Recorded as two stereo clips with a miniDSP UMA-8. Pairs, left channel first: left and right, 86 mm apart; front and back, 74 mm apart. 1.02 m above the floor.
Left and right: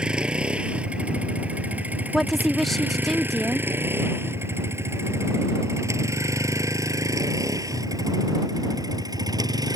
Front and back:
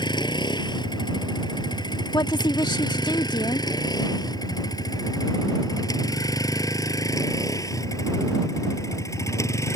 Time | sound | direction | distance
0.0 | a vehicle | 10° right | ?
2.1 | a woman speaking | straight ahead | ?